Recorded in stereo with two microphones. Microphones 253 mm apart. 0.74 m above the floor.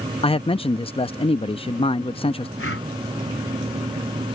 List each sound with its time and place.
0.2 s a man speaking: 25° left (ahead or behind)
2.6 s breathing: 55° left (ahead or behind)